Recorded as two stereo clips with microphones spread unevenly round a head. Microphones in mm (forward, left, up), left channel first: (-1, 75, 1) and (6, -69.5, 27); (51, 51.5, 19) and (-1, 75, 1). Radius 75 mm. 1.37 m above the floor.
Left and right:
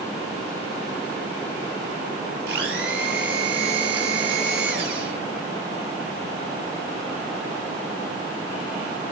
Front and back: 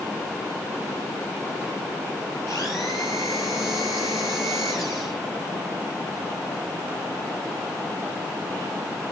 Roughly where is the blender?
Right.